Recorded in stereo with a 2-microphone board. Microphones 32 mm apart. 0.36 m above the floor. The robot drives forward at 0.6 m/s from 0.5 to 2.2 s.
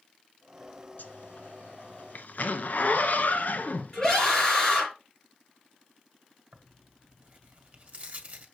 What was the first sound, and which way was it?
A zipper, 70° left (ahead or behind).